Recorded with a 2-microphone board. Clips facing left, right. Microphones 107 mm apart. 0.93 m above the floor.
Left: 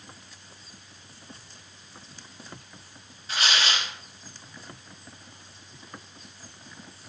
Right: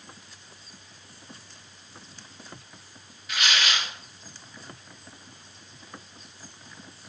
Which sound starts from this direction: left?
Tearing paper, at 3.3 s.